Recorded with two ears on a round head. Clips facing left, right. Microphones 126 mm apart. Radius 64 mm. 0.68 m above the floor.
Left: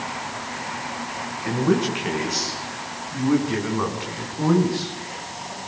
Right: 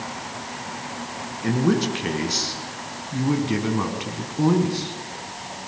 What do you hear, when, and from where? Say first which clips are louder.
1.4 s a man speaking: even; 45° right (ahead or behind), 6 m; by 5.0 s 20° right (ahead or behind), 5.5 m